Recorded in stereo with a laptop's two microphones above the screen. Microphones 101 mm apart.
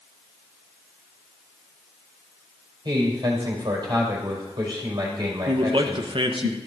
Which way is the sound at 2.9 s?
50° right (ahead or behind).